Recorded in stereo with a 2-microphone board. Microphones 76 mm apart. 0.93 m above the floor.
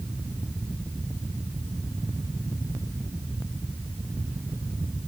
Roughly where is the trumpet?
I don't hear a trumpet.